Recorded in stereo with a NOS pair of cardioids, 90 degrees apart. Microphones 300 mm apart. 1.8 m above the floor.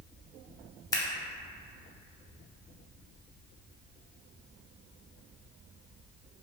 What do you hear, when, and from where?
0.9 s scissors: 10° left, 0.6 m